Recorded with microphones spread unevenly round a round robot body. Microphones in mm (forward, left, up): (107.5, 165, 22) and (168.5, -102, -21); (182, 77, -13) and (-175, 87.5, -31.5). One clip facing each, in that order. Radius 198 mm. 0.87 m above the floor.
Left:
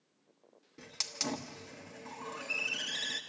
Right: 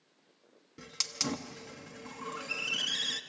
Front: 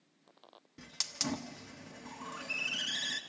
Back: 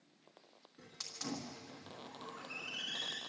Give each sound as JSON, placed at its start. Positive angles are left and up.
{"t": 0.8, "sound": "a hiss", "azimuth_deg": -25, "distance_m": 1.3}